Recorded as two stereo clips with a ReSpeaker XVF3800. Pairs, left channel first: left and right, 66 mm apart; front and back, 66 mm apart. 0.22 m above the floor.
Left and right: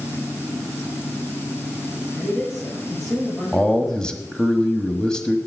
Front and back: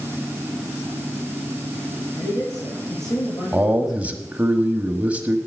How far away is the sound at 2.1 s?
About 6 m.